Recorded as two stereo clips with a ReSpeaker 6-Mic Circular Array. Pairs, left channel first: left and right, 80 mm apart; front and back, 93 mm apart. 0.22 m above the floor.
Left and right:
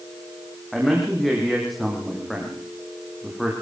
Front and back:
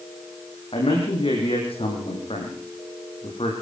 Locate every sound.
0.7 s a man speaking: straight ahead, 9.5 m